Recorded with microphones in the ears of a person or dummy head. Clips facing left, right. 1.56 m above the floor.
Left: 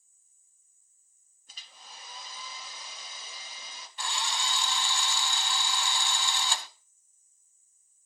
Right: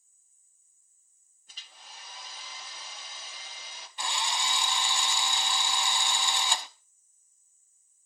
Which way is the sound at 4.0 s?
15° right (ahead or behind).